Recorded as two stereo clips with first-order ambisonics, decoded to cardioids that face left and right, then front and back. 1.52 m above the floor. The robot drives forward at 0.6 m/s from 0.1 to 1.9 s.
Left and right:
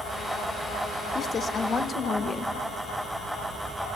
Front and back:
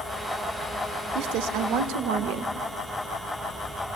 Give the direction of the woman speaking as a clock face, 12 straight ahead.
7 o'clock.